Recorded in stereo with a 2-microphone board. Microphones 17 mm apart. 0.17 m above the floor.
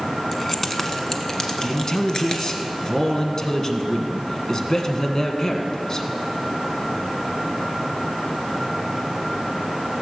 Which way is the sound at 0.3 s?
10° left (ahead or behind).